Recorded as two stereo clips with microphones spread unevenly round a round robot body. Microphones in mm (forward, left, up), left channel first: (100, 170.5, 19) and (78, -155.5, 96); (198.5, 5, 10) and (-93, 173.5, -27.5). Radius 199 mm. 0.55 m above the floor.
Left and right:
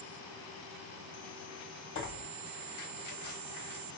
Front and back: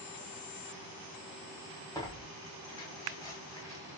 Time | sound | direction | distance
1.9 | tearing paper | 50° left | 1.2 m